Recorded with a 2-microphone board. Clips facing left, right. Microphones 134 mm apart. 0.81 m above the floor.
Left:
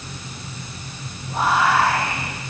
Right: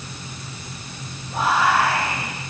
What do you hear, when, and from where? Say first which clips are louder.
1.3 s whispering: left 1 dB; 65° left (ahead or behind), 1.9 m